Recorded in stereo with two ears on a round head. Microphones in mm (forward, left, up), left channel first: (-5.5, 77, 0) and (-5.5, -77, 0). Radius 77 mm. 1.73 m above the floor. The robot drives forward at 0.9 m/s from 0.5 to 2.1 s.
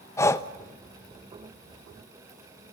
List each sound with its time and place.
0.2 s breathing: 15° left (ahead or behind), 1.0 m